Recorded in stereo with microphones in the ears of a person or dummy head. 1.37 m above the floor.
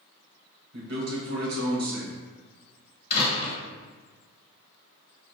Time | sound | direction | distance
0.7 | a man speaking | 80° right | 2.0 m
3.1 | a door slam | 35° left (ahead or behind) | 1.2 m